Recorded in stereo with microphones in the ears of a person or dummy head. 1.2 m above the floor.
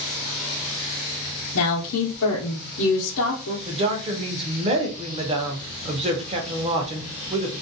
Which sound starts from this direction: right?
A woman speaking, at 3.6 s.